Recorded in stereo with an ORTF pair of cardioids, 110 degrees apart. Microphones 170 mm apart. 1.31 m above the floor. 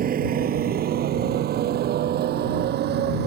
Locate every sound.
0.0 s a motorcycle: 55° right; by 3.3 s 70° right